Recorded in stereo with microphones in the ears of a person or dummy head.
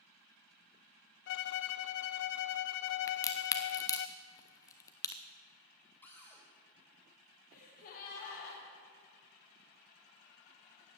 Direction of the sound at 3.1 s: 20° left (ahead or behind).